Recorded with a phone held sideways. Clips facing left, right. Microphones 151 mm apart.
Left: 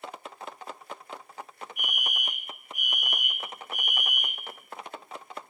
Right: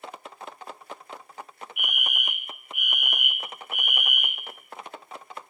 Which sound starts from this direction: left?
A fire alarm, at 1.8 s.